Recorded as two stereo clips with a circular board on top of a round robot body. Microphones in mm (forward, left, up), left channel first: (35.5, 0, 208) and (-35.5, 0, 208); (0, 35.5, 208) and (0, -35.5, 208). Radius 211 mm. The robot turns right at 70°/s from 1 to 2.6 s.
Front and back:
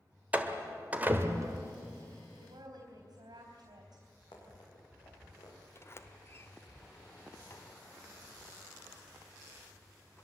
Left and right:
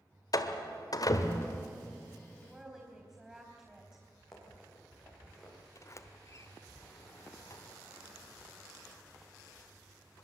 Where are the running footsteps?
5° left, 7.5 m; by 5.6 s 5° right, 8.5 m.